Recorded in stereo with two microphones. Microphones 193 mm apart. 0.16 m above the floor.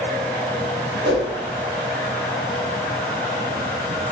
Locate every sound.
1.0 s a whoosh: 75° right (ahead or behind), 3.5 m